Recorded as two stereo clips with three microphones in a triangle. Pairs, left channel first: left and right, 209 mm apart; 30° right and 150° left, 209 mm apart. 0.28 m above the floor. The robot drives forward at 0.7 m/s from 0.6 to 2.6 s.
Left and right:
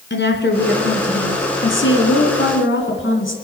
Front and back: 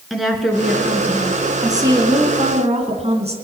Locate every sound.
0.1 s a woman speaking: 60° left, 3 m; by 3.3 s 95° left, 2.5 m